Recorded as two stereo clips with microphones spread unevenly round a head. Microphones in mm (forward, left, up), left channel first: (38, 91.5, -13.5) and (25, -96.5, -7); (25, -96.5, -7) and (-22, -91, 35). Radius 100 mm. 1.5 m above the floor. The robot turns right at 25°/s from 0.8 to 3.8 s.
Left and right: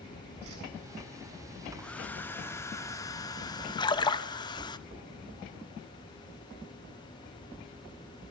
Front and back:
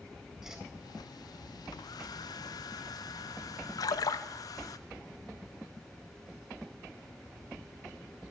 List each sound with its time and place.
0.4 s a whoosh: 115° right, 8 m
1.8 s a hair dryer: 5° left, 0.8 m; by 4.8 s 55° left, 0.8 m
3.8 s a splash: 20° left, 1.1 m